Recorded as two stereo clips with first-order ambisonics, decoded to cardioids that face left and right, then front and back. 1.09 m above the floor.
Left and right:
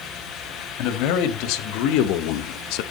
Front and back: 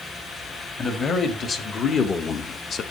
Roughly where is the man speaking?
Ahead left.